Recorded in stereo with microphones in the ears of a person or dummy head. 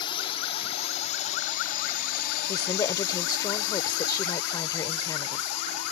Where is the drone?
30° left (ahead or behind); by 5.9 s 80° left.